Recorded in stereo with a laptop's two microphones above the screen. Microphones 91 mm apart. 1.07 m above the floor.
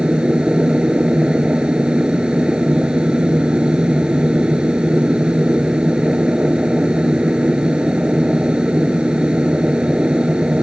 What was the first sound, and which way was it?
A machine running, 10° right (ahead or behind).